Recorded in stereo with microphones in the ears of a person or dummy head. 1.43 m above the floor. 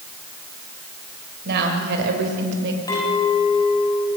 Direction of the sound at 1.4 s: 65° right (ahead or behind).